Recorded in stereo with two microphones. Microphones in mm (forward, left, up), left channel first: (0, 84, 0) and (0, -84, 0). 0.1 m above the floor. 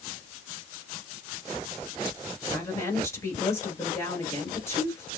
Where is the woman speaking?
20° left (ahead or behind), 1.9 m.